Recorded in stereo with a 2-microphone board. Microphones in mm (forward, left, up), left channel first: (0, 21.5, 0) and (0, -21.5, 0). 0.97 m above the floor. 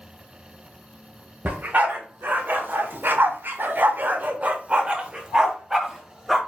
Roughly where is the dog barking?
Right.